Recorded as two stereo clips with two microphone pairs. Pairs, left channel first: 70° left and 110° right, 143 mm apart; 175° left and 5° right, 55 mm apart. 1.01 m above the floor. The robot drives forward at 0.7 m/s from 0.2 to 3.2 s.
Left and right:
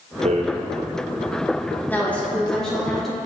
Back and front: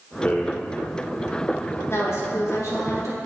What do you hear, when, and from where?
0.2 s a rattle: 130° right, 0.8 m; by 0.5 s 135° right, 0.9 m
1.9 s a woman speaking: 145° left, 1.3 m; by 3.2 s 160° left, 2 m